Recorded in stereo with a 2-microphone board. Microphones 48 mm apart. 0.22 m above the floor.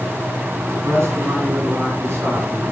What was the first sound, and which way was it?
A man speaking, 65° right (ahead or behind).